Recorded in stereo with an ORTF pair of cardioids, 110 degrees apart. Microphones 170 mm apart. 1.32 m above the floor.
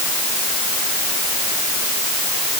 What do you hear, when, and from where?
Only background noise.